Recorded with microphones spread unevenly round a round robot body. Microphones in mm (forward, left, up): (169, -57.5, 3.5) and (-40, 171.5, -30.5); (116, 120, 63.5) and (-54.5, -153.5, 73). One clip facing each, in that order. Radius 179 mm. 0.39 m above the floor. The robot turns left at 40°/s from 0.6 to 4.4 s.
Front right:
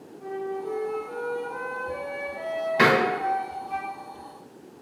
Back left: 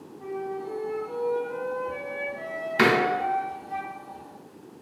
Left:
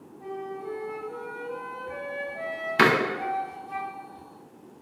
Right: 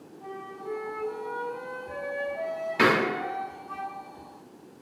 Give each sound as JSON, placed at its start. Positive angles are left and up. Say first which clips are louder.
{"t": 0.2, "sound": "a flute", "louder": "front right 1 dB, left 5 dB", "azimuth_deg": 120, "distance_m": 1.6}
{"t": 2.8, "sound": "a door slam", "louder": "back left 1 dB, left 1 dB", "azimuth_deg": 95, "distance_m": 0.5}